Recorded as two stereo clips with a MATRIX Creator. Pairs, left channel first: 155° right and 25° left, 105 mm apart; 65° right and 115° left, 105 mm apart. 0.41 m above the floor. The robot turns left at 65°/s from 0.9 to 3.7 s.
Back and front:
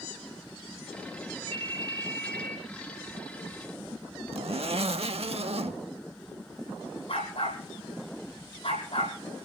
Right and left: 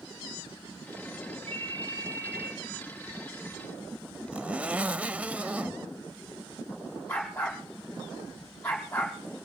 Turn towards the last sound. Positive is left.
turn(degrees=-145)